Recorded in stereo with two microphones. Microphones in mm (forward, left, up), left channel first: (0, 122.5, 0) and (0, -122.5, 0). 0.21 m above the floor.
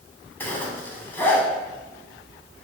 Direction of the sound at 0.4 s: 10° left (ahead or behind).